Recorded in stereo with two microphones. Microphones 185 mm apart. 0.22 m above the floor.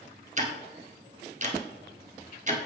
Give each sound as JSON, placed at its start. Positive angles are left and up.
{"t": 0.4, "sound": "ticking", "side_deg": -40, "distance_m": 0.9}